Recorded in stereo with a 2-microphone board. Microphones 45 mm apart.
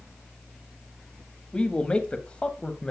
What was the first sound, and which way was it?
A man speaking, 25° left (ahead or behind).